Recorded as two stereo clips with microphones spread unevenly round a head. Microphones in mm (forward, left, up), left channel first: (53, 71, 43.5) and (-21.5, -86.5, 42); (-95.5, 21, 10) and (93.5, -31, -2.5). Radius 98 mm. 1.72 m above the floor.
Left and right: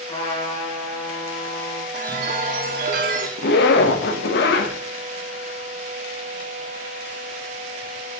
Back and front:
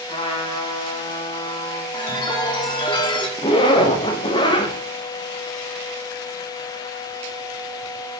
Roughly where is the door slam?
No door slam in this recording.